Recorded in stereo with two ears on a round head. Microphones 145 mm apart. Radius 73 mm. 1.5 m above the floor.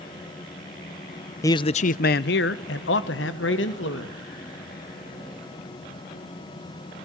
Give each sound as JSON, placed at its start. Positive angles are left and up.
{"t": 1.4, "sound": "a man speaking", "side_deg": 20, "distance_m": 0.5}